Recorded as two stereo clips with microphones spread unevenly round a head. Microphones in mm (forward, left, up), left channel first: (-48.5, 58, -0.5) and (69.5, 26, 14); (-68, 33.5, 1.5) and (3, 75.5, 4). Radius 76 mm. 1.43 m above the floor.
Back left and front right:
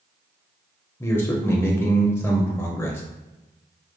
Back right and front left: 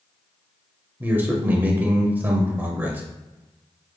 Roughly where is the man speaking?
Left.